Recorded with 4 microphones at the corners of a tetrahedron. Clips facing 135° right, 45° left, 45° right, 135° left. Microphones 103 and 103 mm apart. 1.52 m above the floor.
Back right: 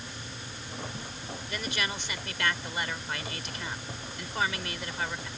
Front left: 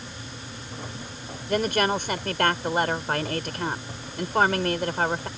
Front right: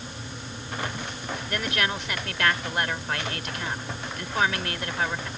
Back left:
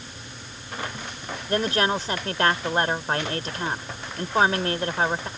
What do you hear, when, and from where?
1.5 s a woman speaking: 80° left